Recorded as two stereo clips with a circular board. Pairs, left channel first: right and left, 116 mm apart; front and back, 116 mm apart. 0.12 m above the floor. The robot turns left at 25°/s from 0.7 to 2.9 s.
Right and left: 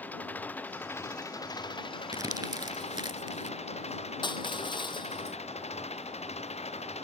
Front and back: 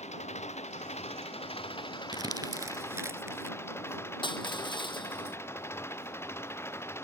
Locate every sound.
0.0 s an engine running: 15° right; by 7.0 s 70° right
2.1 s crumpling: 140° left; by 3.6 s 120° left
4.2 s crushing: 45° right